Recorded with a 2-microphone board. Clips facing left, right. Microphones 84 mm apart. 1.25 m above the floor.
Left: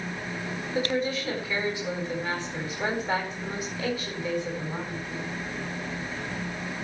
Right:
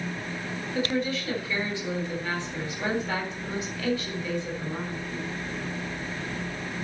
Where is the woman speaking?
20° left (ahead or behind), 8.5 m.